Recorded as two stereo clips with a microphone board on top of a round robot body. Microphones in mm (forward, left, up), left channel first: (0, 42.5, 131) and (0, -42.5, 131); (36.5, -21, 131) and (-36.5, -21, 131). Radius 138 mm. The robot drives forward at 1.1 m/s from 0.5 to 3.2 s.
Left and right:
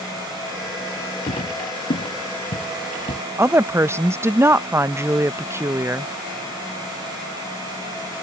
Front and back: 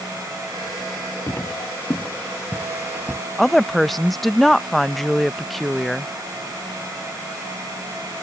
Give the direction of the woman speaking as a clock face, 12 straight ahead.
3 o'clock.